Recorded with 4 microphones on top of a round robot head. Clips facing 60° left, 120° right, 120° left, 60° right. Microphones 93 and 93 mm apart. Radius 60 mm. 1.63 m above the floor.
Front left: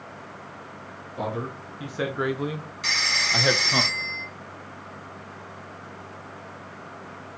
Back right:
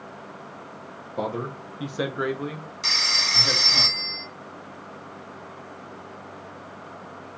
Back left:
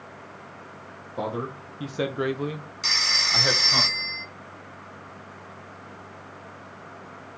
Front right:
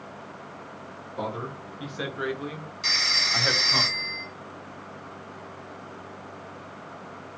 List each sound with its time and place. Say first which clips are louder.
1.2 s a man speaking: back right 1 dB, back left 3 dB; 175° right, 1.2 m; by 3.8 s 40° left, 1.2 m
2.8 s a phone ringing: front left 2 dB, back left 1 dB; 175° left, 1.9 m